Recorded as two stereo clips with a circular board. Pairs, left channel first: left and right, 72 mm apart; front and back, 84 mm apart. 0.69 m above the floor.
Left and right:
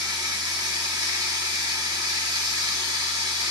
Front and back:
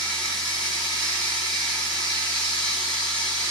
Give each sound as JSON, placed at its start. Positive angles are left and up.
{"t": 0.0, "sound": "running water", "azimuth_deg": -80, "distance_m": 2.0}